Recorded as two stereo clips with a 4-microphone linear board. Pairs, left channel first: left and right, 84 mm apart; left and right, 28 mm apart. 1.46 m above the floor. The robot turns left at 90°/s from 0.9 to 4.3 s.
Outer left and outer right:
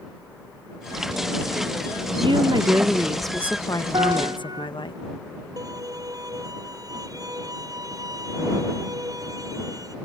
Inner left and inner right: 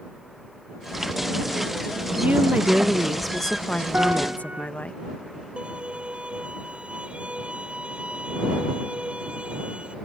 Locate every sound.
2.2 s a woman speaking: 90° right; by 4.9 s 85° left
3.9 s a piano: 90° right; by 4.7 s 120° right
5.6 s a violin: 45° right (ahead or behind)